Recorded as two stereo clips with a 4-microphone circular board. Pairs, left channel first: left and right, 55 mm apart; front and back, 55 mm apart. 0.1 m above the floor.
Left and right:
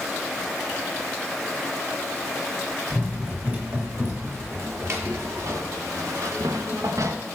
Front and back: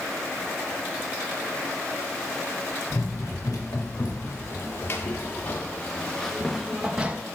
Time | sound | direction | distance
2.9 | running footsteps | 35° right | 2.5 m